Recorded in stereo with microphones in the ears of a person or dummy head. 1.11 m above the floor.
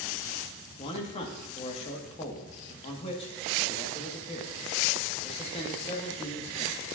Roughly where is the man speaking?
Left.